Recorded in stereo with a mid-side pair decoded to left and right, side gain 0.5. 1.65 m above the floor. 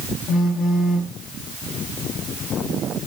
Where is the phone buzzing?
55° left, 1.4 m.